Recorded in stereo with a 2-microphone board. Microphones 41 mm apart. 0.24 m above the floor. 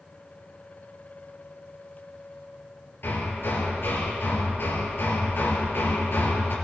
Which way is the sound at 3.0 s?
70° left (ahead or behind).